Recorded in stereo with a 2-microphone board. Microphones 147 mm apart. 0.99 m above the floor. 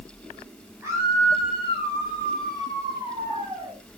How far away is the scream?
About 9 m.